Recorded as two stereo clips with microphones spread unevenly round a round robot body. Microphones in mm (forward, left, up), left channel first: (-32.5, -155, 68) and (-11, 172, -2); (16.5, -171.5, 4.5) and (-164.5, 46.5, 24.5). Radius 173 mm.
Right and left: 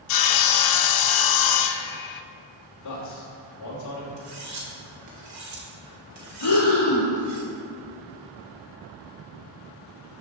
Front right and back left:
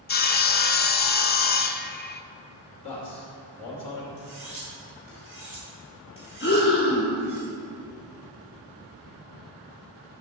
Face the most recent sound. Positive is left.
turn(degrees=-95)